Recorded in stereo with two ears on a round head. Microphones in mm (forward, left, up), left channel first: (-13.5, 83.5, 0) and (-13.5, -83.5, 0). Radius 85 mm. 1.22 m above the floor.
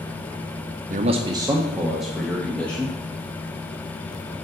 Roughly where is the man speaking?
Right.